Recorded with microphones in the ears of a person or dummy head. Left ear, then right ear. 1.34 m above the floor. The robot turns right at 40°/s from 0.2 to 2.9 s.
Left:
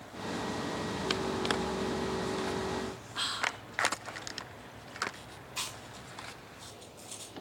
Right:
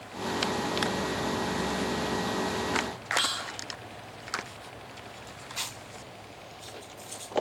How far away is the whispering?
About 1.4 m.